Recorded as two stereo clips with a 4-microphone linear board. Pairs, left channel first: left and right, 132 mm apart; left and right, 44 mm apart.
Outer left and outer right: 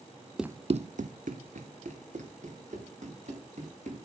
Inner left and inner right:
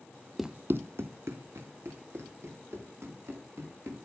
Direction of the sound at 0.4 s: 5° right (ahead or behind).